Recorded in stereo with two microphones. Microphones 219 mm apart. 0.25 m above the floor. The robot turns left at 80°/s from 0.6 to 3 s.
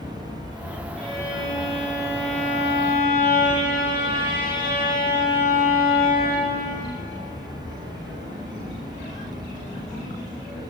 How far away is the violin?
About 4.5 m.